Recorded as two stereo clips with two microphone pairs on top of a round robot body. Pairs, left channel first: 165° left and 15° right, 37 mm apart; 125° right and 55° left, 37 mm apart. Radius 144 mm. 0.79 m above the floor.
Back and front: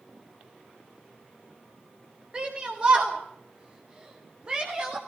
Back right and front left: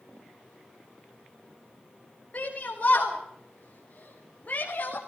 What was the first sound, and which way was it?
A shout, 75° right.